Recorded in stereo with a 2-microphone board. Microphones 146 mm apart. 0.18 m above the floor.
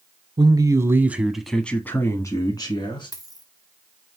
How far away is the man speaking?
About 1.1 m.